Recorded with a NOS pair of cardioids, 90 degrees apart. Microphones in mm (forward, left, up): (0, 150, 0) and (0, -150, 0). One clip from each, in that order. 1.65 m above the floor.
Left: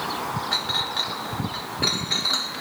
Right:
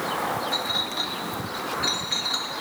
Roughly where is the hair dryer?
I don't hear a hair dryer.